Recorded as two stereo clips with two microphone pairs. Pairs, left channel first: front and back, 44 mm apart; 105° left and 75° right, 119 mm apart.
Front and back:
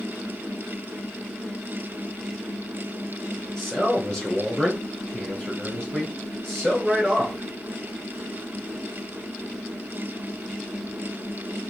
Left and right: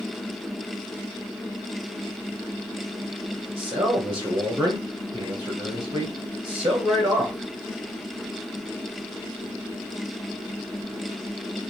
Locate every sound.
3.6 s a man speaking: 65° right, 1.5 m